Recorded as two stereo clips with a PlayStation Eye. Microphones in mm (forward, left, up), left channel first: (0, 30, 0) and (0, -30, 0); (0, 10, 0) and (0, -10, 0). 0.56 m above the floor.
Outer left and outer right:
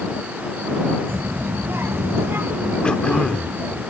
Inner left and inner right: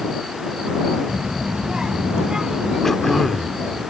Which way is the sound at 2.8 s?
15° left (ahead or behind).